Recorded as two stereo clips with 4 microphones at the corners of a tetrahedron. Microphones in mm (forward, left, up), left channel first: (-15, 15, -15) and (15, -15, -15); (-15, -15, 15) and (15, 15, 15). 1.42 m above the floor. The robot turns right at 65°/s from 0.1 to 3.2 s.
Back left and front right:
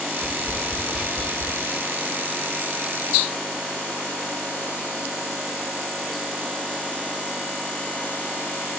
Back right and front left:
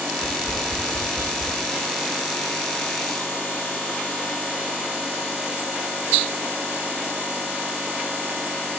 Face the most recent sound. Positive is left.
turn(degrees=175)